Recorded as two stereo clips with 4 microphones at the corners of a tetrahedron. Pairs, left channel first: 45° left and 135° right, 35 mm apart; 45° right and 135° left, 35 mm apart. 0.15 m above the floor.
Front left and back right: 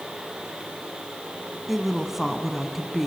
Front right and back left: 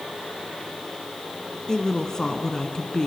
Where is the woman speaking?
65° right, 1.2 m.